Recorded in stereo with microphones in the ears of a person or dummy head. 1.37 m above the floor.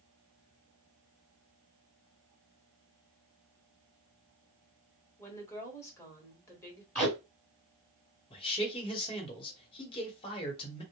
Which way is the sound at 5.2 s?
15° left (ahead or behind).